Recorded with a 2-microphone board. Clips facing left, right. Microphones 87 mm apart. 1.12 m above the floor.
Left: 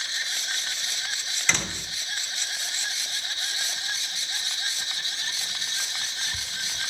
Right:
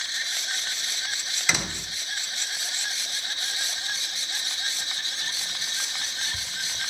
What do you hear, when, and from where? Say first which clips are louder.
1.5 s a door slam: even; 5° right (ahead or behind), 0.7 m